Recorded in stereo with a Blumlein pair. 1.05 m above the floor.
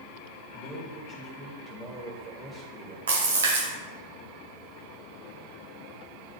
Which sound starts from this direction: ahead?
A man speaking, at 0.5 s.